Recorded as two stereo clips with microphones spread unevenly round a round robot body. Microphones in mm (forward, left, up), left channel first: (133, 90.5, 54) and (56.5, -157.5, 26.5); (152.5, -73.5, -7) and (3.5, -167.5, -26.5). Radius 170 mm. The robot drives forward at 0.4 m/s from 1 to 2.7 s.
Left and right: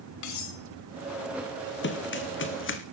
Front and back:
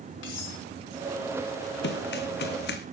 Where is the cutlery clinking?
70° left, 3.5 m.